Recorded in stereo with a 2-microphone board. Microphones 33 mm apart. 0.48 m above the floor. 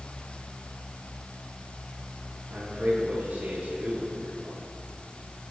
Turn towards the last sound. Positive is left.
turn(degrees=-65)  # may be behind; listen again after turning